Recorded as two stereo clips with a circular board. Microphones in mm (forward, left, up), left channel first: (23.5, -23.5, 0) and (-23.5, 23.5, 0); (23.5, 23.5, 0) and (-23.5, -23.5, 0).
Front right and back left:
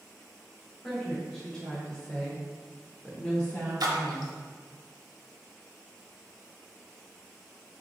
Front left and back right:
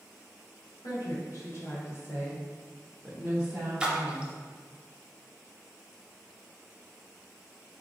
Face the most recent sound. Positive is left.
turn(degrees=150)